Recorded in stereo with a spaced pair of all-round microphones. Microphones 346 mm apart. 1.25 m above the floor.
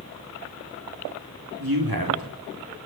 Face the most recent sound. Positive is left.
turn(degrees=-85)